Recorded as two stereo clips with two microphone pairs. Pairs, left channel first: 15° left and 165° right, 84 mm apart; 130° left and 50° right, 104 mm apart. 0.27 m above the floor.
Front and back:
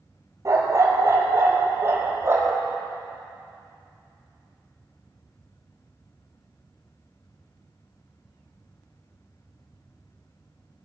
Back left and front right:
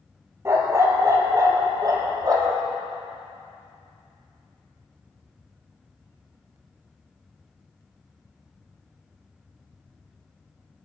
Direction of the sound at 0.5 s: 115° right.